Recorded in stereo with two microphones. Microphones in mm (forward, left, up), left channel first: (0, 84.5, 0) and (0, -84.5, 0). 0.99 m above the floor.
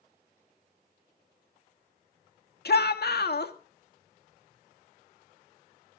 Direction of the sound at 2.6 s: 75° left (ahead or behind).